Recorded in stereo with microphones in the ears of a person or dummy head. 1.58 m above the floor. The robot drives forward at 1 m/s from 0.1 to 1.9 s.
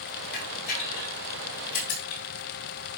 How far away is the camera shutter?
About 5.5 m.